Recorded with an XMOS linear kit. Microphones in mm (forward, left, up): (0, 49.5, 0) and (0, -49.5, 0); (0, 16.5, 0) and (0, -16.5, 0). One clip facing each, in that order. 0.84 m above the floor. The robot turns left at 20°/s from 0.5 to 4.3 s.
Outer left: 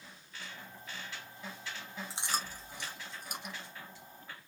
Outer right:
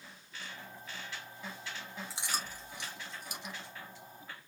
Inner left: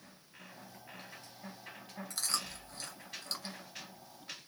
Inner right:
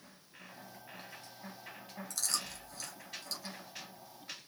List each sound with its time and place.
2.1 s chewing: 25° left (ahead or behind), 1.7 m; by 3.5 s 55° left (ahead or behind), 1.7 m